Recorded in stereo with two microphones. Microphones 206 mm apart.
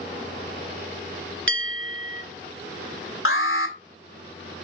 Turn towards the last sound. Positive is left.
turn(degrees=85)